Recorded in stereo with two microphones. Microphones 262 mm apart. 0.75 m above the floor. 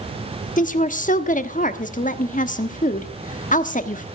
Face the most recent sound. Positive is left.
turn(degrees=30)  # may be behind; listen again after turning